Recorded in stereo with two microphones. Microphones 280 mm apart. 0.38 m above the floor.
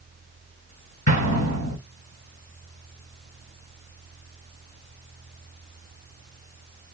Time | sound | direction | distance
1.1 | an explosion | 75° left (ahead or behind) | 4 m